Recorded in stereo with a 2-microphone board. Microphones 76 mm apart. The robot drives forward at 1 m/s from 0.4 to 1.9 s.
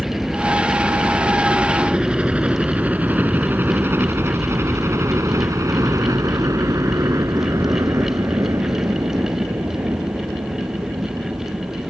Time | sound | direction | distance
0.0 | a helicopter | 5° right (ahead or behind) | ?